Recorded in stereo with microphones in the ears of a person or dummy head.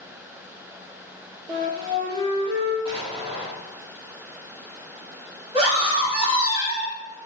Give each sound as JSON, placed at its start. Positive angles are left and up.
{"t": 1.5, "sound": "a flute", "side_deg": -20, "distance_m": 0.7}
{"t": 2.9, "sound": "an explosion", "side_deg": -30, "distance_m": 1.5}
{"t": 5.5, "sound": "a scream", "side_deg": -20, "distance_m": 1.5}